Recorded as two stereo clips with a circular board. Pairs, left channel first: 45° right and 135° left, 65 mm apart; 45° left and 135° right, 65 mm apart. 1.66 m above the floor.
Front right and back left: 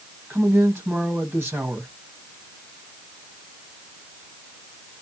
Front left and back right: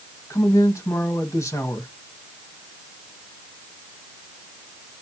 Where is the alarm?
I don't hear an alarm.